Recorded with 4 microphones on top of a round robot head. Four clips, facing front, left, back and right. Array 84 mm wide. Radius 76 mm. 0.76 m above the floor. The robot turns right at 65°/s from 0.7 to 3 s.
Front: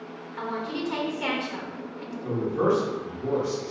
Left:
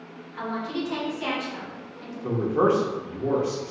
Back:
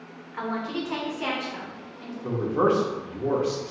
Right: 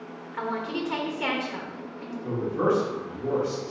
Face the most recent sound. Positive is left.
turn(degrees=155)